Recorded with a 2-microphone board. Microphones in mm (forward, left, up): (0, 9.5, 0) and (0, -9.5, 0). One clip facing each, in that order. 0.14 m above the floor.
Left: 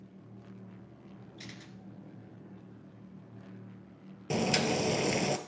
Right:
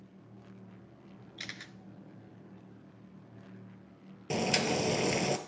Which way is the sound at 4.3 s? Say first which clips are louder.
Left 1 dB; centre (ahead or behind).